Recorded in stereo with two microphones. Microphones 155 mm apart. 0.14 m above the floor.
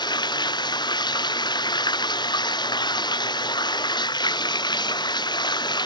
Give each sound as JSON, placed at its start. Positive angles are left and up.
{"t": 0.0, "sound": "running water", "side_deg": 30}